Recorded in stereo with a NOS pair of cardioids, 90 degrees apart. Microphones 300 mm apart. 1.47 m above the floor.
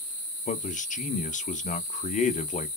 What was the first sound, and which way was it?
A man speaking, 25° left.